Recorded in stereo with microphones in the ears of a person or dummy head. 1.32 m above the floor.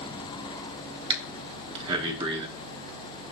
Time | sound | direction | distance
1.1 | breathing | 20° right (ahead or behind) | 2.5 m